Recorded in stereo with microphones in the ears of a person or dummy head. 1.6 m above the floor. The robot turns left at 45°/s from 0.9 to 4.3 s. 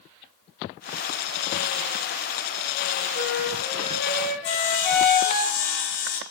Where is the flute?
105° left, 1.8 m; by 5.4 s 50° left, 1.8 m.